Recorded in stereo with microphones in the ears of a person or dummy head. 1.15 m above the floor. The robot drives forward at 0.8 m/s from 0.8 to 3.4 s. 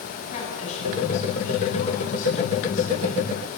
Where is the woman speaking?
40° left (ahead or behind), 8.5 m; by 3.5 s 55° left (ahead or behind), 7 m.